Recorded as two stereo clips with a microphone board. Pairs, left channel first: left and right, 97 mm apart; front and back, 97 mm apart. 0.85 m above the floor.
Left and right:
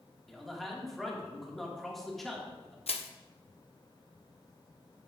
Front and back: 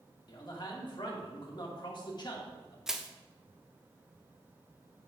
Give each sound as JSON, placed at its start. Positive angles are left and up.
{"t": 0.3, "sound": "a man speaking", "azimuth_deg": 0, "distance_m": 1.4}
{"t": 2.9, "sound": "crushing", "azimuth_deg": 95, "distance_m": 0.5}